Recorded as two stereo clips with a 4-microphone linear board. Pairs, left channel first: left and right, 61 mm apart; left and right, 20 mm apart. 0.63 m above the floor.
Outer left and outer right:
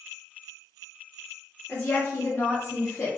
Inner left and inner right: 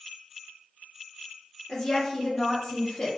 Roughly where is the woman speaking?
Left.